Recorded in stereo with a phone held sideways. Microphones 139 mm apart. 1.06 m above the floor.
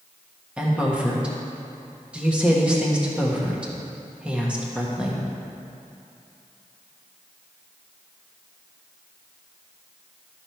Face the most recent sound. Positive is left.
turn(degrees=-5)  # may be behind; listen again after turning